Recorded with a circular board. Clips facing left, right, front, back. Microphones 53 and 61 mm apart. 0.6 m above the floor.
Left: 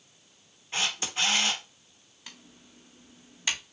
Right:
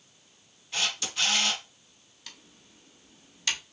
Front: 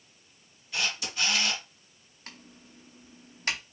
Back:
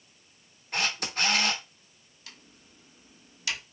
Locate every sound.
0.7 s a camera shutter: 150° left, 1.1 m
2.3 s typing on a keyboard: 25° left, 0.8 m